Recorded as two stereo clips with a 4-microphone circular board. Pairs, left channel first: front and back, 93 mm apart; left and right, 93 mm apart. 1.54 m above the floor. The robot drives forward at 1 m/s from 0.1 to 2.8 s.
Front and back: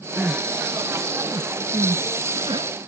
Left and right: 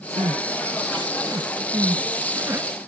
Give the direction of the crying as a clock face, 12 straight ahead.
3 o'clock.